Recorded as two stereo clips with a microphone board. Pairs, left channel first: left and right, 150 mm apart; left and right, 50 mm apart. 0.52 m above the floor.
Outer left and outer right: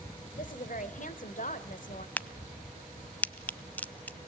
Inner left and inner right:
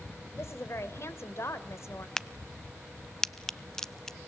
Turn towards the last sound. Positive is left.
turn(degrees=10)  # may be behind; listen again after turning